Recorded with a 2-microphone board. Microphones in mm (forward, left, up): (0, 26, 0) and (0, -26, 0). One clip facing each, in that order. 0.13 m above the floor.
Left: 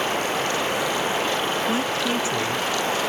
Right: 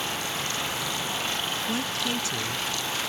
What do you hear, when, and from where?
0.0 s running water: 45° left (ahead or behind)
1.7 s a woman speaking: 25° left (ahead or behind)